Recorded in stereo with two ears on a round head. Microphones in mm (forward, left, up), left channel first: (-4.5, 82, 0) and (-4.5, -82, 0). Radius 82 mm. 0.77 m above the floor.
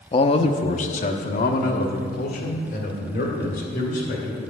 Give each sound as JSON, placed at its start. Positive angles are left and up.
{"t": 0.1, "sound": "a man speaking", "side_deg": 25, "distance_m": 0.5}